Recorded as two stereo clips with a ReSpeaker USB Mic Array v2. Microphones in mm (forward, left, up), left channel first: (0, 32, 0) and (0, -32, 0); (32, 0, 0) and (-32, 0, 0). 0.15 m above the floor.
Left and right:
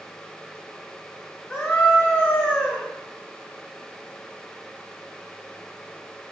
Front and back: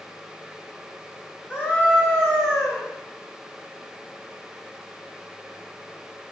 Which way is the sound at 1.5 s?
25° left.